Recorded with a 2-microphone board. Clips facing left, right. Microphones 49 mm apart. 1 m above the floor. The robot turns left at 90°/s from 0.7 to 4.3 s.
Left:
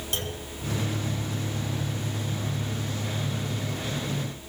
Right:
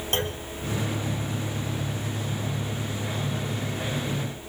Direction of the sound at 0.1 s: 45° right (ahead or behind).